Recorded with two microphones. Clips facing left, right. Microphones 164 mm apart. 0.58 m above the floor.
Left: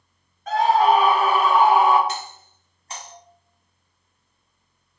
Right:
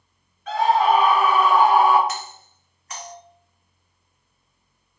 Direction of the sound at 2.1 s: 30° left (ahead or behind).